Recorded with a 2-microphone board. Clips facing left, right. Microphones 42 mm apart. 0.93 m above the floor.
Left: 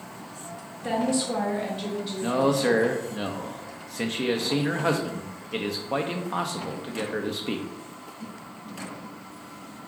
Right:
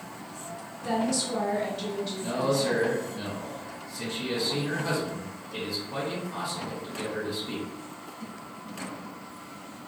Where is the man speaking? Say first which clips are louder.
Left 5 dB; 55° left (ahead or behind), 0.7 m.